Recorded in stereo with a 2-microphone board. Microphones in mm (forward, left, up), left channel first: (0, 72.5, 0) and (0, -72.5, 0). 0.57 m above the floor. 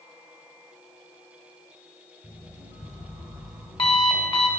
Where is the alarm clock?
40° left (ahead or behind), 2.5 m.